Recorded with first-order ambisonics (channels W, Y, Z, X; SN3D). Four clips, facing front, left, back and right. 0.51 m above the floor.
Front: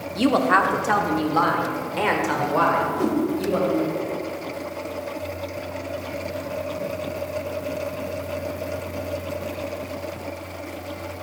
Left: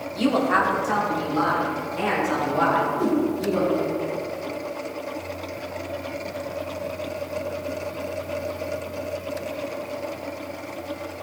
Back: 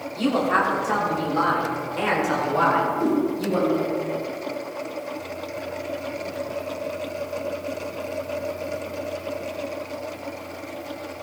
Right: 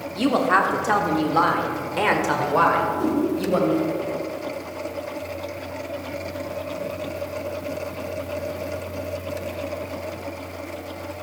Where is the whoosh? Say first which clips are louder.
Even, back 1 dB; straight ahead, 1.7 m.